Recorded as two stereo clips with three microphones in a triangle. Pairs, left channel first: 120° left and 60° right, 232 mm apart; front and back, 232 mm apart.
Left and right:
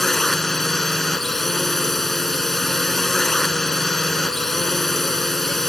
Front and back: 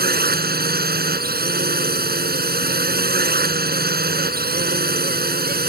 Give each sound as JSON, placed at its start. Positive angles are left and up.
{"t": 0.0, "sound": "a drone", "azimuth_deg": -150}